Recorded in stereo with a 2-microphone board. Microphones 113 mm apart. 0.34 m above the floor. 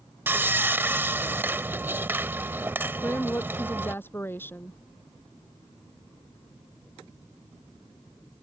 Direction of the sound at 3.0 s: 20° left (ahead or behind).